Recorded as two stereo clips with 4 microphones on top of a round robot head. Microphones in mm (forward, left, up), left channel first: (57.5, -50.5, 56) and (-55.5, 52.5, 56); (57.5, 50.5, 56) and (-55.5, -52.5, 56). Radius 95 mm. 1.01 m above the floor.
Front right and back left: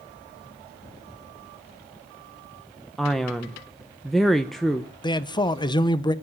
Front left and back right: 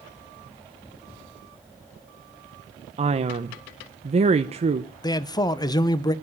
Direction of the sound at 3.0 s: 130° right.